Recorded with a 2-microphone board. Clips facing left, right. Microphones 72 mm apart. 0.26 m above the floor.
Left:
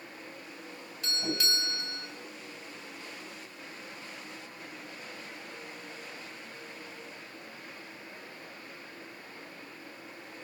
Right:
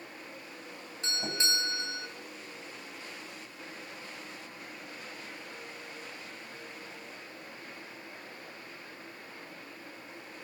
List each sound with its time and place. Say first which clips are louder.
1.0 s a doorbell: left 1 dB; 30° right (ahead or behind), 2.5 m